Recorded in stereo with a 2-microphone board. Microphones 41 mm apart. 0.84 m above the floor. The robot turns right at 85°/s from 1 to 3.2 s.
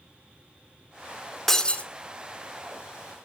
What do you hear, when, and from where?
1.5 s breaking glass: 5° left, 1.2 m; by 1.9 s 40° left, 1.2 m